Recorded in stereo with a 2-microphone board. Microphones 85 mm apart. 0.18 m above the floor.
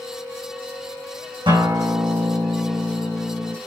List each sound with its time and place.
1.5 s a guitar: 70° right (ahead or behind), 6 m